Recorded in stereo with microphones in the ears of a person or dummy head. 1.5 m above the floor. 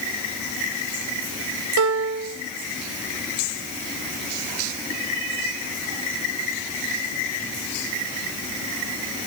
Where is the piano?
75° right (ahead or behind), 0.9 m.